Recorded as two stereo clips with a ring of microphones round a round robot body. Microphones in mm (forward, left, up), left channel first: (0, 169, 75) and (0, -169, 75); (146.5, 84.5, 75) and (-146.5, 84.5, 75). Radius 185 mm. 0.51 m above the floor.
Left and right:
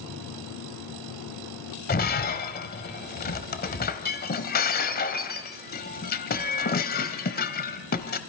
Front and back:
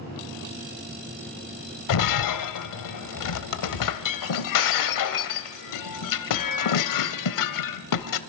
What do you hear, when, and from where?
1.9 s breaking glass: 25° left, 1.1 m